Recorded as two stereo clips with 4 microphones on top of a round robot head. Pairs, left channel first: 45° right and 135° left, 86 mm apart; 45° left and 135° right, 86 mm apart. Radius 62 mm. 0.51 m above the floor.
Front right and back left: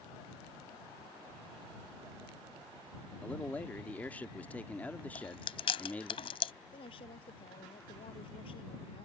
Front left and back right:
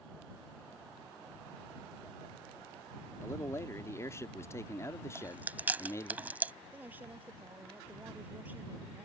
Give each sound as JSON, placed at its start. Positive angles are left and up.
{"t": 3.2, "sound": "a man speaking", "azimuth_deg": 20}
{"t": 5.2, "sound": "chewing", "azimuth_deg": -65}
{"t": 6.7, "sound": "a woman speaking", "azimuth_deg": -65}